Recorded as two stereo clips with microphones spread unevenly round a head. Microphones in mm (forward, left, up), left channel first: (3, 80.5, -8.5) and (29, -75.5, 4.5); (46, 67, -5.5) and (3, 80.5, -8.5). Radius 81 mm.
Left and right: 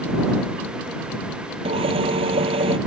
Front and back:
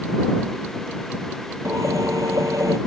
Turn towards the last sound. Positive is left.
turn(degrees=-140)